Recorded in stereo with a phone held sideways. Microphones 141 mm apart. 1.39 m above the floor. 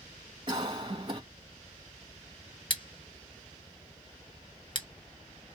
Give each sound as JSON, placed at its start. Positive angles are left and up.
{"t": 0.5, "sound": "a cough", "side_deg": -35, "distance_m": 2.0}
{"t": 2.7, "sound": "scissors", "side_deg": 35, "distance_m": 1.1}